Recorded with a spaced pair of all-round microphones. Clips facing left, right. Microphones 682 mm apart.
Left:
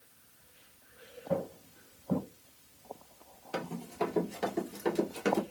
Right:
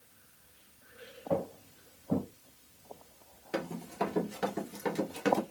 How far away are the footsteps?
About 2.5 m.